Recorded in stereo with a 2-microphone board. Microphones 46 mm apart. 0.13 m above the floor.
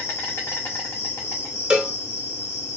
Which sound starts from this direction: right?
A cowbell, at 1.7 s.